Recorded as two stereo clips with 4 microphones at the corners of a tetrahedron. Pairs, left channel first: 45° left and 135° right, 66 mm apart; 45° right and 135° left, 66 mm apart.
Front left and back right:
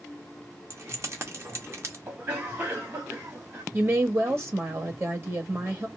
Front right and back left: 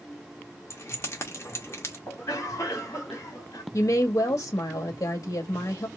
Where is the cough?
85° right, 2.5 m.